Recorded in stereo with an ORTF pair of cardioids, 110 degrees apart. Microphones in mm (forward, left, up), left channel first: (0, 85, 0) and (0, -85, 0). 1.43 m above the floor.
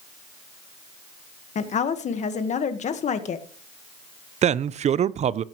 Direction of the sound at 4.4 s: 40° right.